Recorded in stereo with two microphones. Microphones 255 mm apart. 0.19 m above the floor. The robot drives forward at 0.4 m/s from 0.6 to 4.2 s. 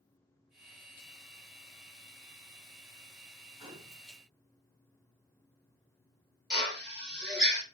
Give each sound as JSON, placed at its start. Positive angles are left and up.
{"t": 3.6, "sound": "a gunshot", "side_deg": -20, "distance_m": 1.2}
{"t": 6.5, "sound": "a drill", "side_deg": 0, "distance_m": 3.5}